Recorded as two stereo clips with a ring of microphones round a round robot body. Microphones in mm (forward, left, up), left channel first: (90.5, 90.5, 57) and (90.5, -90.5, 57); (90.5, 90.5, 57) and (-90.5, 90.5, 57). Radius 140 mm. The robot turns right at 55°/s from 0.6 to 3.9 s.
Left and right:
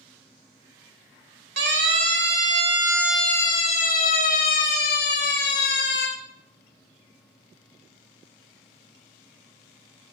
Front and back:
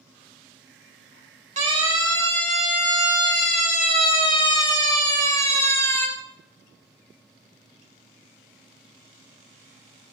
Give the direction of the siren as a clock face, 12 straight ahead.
4 o'clock.